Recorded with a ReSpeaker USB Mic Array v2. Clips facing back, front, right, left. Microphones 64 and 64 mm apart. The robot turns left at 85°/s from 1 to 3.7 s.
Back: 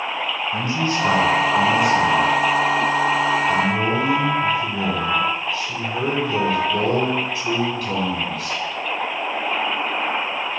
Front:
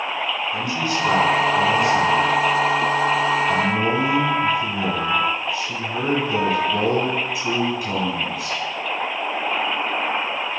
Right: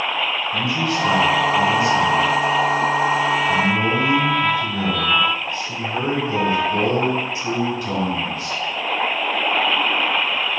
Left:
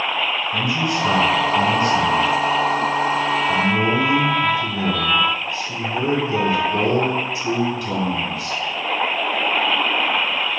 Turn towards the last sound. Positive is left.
turn(degrees=-60)